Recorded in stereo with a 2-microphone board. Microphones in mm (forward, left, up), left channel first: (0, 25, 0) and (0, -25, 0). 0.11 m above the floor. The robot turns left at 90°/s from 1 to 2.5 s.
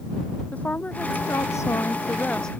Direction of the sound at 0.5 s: 145° left.